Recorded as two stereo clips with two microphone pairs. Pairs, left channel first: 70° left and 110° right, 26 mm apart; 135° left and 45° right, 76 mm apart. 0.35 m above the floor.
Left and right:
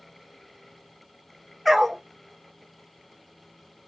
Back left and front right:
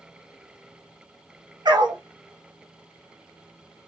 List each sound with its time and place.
1.6 s a dog barking: 30° right, 1.8 m